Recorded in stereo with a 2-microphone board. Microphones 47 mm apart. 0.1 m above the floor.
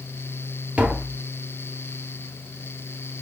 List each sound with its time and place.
0.8 s tapping: 35° right (ahead or behind), 0.7 m